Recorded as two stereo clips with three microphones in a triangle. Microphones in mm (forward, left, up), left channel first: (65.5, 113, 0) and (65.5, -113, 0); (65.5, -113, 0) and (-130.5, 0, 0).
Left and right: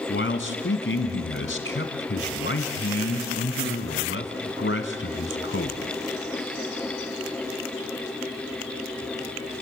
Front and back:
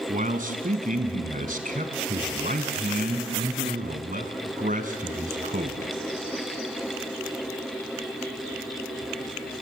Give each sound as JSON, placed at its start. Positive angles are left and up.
{"t": 0.1, "sound": "a man speaking", "azimuth_deg": 105, "distance_m": 1.9}